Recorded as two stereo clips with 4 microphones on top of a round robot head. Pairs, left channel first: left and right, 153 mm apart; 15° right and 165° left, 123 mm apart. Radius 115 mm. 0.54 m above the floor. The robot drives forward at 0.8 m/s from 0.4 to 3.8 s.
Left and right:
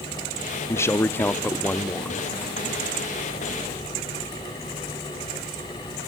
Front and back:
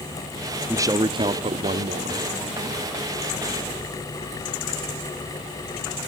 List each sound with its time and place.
0.7 s a man speaking: 135° left, 0.9 m; by 2.2 s 170° left, 1.7 m